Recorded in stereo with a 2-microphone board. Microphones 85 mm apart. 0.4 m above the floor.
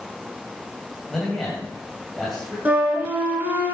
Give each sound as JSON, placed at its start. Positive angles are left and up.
{"t": 1.1, "sound": "a man speaking", "side_deg": 5, "distance_m": 2.5}
{"t": 2.6, "sound": "a flute", "side_deg": -20, "distance_m": 2.0}